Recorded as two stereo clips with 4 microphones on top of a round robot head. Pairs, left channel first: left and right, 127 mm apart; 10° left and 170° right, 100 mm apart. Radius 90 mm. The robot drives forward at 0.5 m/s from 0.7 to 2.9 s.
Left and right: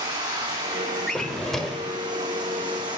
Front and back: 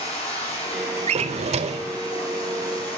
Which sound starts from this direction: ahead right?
Running water, at 0.0 s.